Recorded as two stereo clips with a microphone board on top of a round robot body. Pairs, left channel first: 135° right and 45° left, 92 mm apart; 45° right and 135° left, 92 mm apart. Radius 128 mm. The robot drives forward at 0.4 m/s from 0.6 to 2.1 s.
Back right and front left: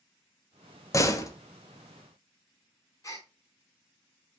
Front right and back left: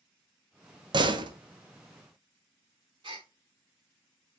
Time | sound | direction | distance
0.9 | a door slam | 170° left | 1.2 m
3.0 | a gasp | 170° left | 0.7 m